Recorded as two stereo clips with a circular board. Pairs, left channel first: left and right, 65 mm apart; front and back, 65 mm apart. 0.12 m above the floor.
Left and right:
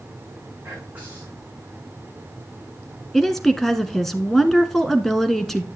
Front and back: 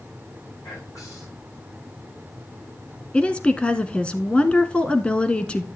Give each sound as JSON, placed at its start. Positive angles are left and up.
{"t": 0.6, "sound": "whispering", "azimuth_deg": -25, "distance_m": 7.5}
{"t": 3.1, "sound": "a woman speaking", "azimuth_deg": 15, "distance_m": 1.0}